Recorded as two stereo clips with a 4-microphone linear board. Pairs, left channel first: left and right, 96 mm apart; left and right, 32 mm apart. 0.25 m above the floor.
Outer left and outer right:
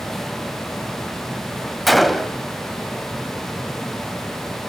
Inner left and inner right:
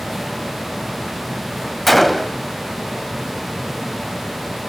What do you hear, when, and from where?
1.9 s a gunshot: centre (ahead or behind), 0.8 m